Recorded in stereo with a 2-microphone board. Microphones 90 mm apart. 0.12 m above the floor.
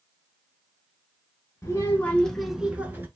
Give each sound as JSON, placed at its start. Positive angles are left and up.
{"t": 1.6, "sound": "a child speaking", "side_deg": 30, "distance_m": 0.8}